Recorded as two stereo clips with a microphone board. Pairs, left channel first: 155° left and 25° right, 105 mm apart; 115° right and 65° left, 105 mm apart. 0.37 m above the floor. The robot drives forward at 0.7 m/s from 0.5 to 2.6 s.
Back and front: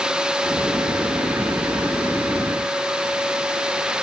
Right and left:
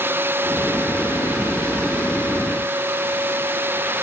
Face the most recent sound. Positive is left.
No sound to turn to.